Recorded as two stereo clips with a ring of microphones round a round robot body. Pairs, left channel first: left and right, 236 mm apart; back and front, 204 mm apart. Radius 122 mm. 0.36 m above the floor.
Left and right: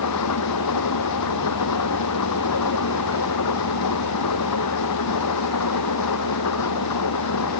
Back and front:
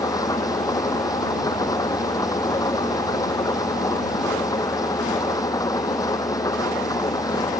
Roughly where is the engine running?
Left.